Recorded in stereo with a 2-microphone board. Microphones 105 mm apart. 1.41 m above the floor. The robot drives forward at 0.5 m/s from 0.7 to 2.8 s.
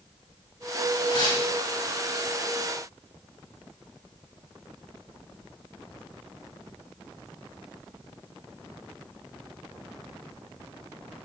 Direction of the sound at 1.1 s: 45° left (ahead or behind).